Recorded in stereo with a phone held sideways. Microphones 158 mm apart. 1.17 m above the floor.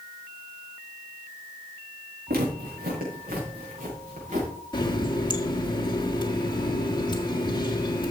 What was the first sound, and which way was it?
Footsteps, 75° right (ahead or behind).